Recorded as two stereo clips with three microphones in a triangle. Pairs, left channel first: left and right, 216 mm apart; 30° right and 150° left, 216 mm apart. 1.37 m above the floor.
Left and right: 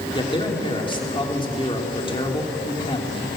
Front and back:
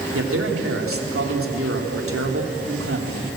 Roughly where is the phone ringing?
I don't hear a phone ringing.